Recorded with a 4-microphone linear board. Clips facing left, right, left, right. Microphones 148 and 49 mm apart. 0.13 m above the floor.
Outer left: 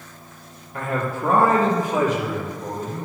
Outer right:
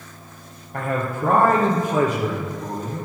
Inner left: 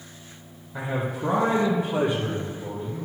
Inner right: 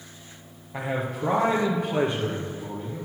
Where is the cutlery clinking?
I don't hear cutlery clinking.